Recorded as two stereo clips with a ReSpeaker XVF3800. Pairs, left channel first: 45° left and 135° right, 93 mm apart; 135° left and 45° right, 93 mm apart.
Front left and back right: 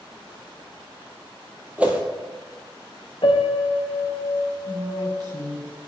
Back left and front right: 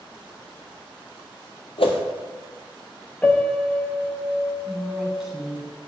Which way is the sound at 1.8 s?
150° left.